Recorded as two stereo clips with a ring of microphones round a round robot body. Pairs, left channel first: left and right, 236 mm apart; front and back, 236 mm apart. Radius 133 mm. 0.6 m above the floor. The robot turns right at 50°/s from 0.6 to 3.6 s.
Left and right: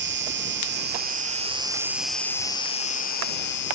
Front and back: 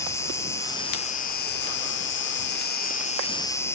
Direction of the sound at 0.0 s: 75° right.